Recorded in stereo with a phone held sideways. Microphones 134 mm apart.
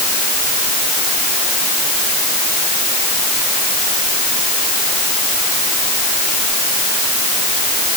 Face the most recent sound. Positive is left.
No sound to turn to.